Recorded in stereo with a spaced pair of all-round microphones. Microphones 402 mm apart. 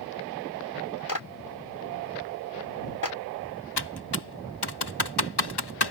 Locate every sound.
1.1 s a clap: 55° left (ahead or behind)
3.8 s typing on a keyboard: 80° left